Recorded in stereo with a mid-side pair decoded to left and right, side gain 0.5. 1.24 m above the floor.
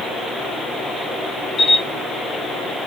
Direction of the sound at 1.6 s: 35° left.